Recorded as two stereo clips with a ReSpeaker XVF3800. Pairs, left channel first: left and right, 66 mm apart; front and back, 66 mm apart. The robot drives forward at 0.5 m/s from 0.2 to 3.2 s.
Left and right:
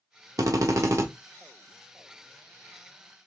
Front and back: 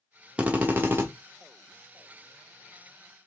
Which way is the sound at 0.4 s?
110° right.